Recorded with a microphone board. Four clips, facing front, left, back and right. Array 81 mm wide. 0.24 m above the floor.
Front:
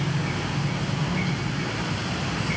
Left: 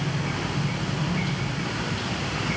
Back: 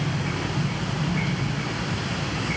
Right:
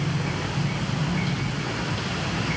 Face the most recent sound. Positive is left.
No sound to turn to.